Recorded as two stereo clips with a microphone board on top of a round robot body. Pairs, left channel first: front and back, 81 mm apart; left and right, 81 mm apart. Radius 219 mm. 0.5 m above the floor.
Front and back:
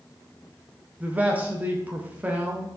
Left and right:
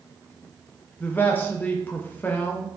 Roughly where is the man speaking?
Behind left.